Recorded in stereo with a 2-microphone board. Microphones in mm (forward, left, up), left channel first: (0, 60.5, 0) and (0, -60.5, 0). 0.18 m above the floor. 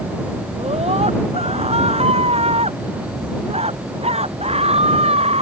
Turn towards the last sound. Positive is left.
turn(degrees=-60)  # may be behind; listen again after turning